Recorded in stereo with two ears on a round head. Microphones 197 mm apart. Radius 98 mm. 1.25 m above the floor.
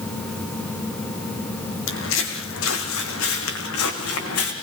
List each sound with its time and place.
1.9 s footsteps: 65° left (ahead or behind), 4 m; by 4.5 s 75° left (ahead or behind), 4.5 m